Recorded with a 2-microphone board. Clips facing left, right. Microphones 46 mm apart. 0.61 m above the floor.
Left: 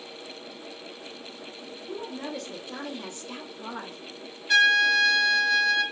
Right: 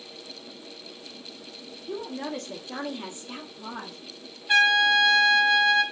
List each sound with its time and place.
1.9 s a woman speaking: 55° right (ahead or behind), 0.9 m; by 4.0 s 5° left (ahead or behind), 0.8 m
4.5 s a trumpet: 20° right (ahead or behind), 0.6 m